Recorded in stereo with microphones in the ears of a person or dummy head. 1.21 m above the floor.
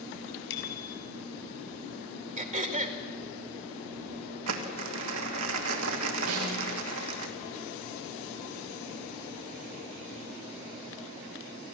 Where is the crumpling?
75° right (ahead or behind), 2 m.